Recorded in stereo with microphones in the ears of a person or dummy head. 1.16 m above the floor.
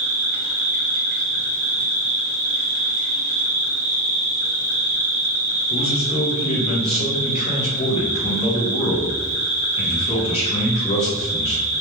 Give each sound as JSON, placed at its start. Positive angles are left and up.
{"t": 0.0, "sound": "an insect", "side_deg": -35, "distance_m": 0.9}
{"t": 5.7, "sound": "a man speaking", "side_deg": 35, "distance_m": 1.1}